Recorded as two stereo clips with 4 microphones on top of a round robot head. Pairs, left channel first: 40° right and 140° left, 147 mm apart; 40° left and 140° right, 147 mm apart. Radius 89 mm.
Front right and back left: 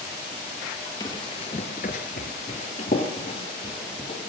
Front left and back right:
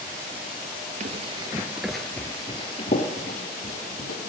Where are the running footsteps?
105° right, 1.0 m; by 4.2 s 15° left, 1.8 m.